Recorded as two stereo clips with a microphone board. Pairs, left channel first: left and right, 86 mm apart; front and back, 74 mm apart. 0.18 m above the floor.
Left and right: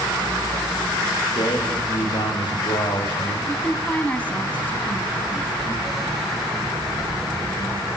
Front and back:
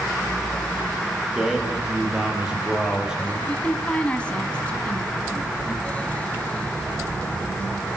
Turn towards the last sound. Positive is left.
turn(degrees=50)